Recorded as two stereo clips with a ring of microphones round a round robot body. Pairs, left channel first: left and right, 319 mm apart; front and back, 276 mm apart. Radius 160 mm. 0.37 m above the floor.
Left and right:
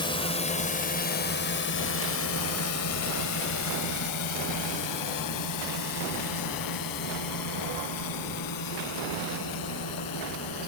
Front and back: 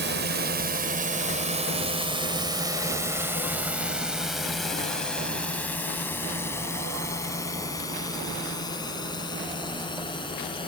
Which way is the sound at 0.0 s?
160° left.